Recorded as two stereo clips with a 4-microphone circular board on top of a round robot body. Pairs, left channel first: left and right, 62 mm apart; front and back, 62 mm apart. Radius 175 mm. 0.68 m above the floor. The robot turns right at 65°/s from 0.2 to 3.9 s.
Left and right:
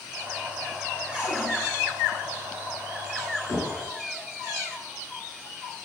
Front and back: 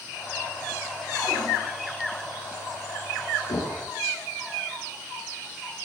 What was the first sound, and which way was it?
A cupboard door, 15° right.